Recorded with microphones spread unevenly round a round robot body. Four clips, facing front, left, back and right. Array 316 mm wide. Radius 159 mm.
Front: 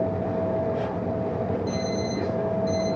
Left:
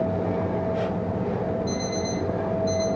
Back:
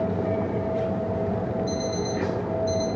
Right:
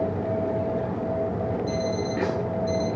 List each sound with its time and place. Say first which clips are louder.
1.7 s an alarm clock: right 1 dB, even; 15° right, 6.5 m